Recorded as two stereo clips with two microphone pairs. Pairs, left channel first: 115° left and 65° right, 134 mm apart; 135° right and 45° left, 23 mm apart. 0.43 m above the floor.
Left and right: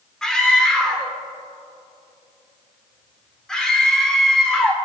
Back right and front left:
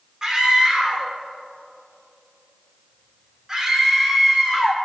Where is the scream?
40° left, 1.4 m.